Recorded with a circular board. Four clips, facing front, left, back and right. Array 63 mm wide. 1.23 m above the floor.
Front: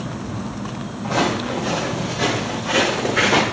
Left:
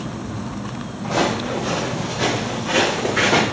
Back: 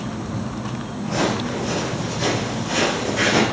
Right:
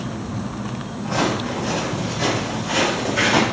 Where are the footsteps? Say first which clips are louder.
Left 1 dB, front 2 dB; 50° left, 2.5 m; by 3.4 s 40° left, 4 m.